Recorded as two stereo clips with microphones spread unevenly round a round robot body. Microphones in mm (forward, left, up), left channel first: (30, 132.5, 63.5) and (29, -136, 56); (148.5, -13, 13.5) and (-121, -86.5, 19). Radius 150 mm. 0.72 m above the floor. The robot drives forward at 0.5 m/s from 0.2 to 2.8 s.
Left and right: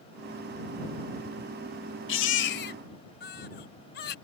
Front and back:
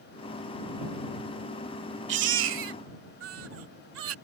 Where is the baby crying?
140° left; by 4.2 s 145° left.